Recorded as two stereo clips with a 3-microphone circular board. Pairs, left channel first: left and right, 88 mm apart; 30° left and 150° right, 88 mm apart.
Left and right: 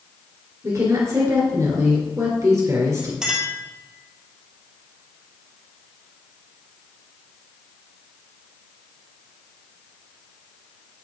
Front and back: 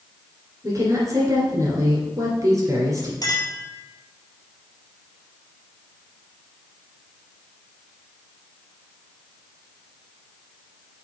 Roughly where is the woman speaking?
Behind right.